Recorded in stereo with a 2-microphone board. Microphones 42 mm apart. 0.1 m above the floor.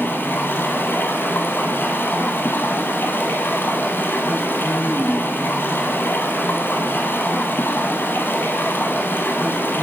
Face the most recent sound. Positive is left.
turn(degrees=60)  # may be behind; listen again after turning